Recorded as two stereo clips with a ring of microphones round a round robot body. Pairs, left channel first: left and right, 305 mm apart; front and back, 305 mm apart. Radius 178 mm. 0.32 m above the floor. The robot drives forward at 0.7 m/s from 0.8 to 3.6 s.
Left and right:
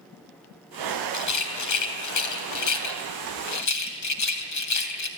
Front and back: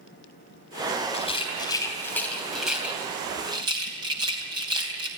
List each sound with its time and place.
1.1 s a rattle: 70° left, 3.5 m; by 5.1 s 105° left, 3 m